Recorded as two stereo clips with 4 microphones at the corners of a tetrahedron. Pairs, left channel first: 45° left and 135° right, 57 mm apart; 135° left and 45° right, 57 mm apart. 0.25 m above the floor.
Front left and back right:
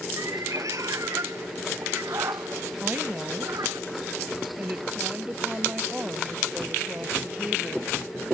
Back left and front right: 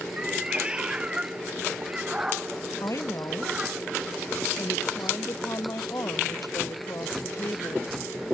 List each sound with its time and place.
0.2 s a cat meowing: 120° right
2.8 s a woman speaking: 160° left